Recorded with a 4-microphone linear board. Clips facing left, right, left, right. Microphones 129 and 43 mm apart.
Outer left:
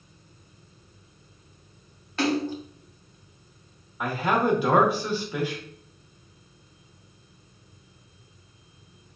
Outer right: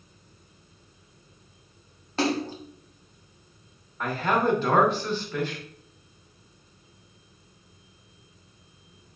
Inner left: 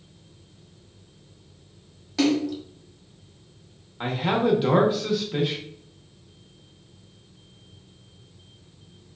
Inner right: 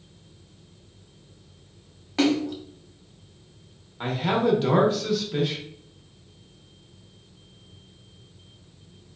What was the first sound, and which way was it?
A splash, 35° right (ahead or behind).